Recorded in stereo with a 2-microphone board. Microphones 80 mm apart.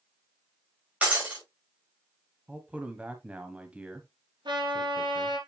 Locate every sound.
1.0 s breaking glass: 15° right (ahead or behind), 5.5 m
2.5 s a man speaking: 15° right (ahead or behind), 1.2 m
4.5 s a trumpet: 70° right (ahead or behind), 5 m